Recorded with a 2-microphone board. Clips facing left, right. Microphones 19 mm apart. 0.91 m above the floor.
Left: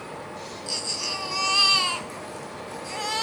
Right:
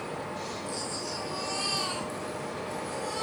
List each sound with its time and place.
0.7 s a baby crying: 70° left (ahead or behind), 4 m